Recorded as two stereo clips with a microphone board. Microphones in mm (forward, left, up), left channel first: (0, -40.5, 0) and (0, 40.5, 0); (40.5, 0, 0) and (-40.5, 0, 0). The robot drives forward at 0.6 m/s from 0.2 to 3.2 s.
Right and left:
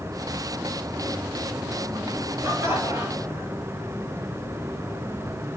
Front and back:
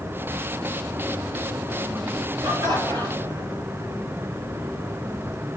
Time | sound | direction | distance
2.4 | laughter | 150° left | 6.5 m